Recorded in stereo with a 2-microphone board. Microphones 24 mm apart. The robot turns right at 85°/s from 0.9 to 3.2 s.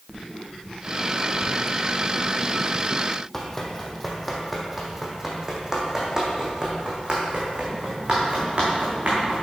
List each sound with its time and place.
3.3 s running footsteps: 15° left (ahead or behind), 1.7 m; by 9.4 s 45° right (ahead or behind), 3.5 m